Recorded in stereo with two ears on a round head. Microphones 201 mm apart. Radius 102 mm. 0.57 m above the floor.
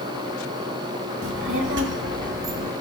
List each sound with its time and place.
1.2 s a child speaking: 60° right (ahead or behind), 1.1 m; by 2.7 s 50° right (ahead or behind), 1.9 m